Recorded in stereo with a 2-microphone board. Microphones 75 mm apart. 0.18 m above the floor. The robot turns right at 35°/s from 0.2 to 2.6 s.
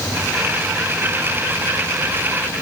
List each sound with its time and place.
Only background noise.